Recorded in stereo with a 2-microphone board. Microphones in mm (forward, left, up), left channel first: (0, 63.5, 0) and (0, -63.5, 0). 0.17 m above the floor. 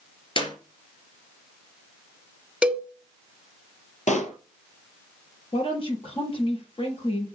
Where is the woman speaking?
45° left (ahead or behind), 4.5 m.